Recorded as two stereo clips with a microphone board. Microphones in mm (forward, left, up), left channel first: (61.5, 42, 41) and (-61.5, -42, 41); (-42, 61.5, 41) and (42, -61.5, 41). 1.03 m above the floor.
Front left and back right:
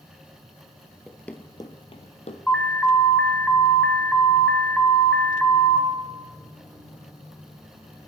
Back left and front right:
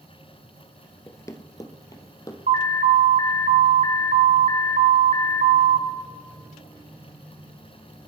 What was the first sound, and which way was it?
Running footsteps, 135° left.